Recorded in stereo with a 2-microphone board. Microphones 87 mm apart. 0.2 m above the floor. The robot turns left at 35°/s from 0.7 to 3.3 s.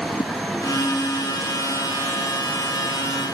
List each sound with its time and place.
0.2 s a whoosh: 60° left (ahead or behind)